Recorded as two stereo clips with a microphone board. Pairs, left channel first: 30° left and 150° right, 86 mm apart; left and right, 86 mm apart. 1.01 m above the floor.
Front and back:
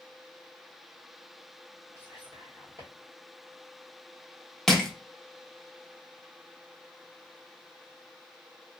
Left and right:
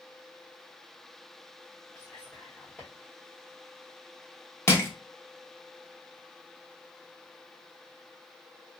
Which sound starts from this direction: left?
Crushing, at 4.7 s.